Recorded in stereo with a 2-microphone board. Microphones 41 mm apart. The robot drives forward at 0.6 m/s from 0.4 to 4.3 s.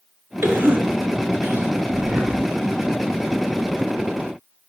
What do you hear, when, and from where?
0.4 s a cough: 70° right (ahead or behind), 3.5 m; by 1.7 s 65° right (ahead or behind), 3.5 m
1.9 s breathing: 40° right (ahead or behind), 2 m; by 2.4 s 45° right (ahead or behind), 1.9 m